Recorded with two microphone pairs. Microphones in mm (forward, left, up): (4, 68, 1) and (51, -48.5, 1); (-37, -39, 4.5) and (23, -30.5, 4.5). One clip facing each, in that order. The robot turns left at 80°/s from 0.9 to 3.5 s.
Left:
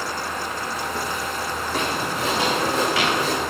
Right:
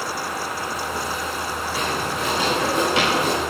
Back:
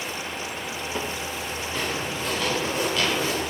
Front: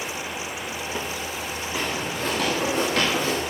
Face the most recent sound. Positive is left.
turn(degrees=-45)